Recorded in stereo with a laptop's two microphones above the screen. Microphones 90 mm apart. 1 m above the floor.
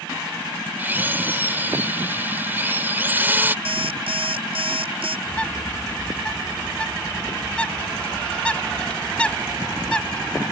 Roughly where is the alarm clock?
Right.